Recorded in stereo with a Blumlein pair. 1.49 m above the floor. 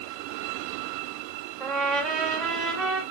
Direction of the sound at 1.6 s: 10° right.